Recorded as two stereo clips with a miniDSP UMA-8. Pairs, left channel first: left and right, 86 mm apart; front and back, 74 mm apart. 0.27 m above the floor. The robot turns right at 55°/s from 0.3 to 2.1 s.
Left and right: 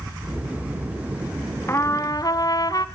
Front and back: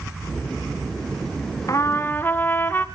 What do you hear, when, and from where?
1.7 s a trumpet: 35° left, 1.7 m; by 2.9 s 60° left, 1.7 m